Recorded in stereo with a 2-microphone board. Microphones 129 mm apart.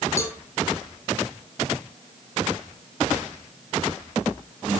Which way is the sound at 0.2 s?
20° left (ahead or behind).